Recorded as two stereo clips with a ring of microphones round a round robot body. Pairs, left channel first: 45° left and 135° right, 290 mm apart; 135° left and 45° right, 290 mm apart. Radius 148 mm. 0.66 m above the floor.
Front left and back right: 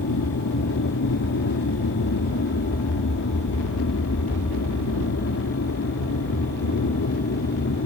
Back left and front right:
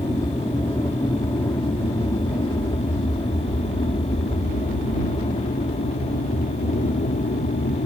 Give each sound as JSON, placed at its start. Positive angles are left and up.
{"t": 0.0, "sound": "an aircraft", "azimuth_deg": 55}